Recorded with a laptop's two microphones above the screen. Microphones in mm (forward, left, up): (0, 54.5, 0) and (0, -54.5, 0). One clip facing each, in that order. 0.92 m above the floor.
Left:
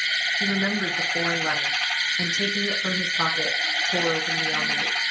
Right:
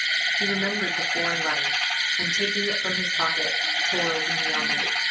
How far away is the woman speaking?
About 0.6 m.